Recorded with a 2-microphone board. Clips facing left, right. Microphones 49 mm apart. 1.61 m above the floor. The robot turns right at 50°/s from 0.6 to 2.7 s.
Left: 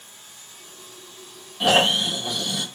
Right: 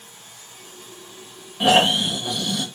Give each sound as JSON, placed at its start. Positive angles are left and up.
{"t": 0.0, "sound": "running water", "azimuth_deg": -65, "distance_m": 2.0}
{"t": 1.6, "sound": "snoring", "side_deg": -20, "distance_m": 0.9}